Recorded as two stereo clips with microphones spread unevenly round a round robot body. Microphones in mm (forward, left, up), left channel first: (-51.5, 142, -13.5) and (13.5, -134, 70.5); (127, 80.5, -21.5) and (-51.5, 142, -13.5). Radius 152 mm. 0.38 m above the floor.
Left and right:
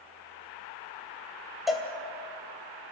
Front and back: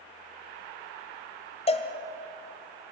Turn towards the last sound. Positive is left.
turn(degrees=25)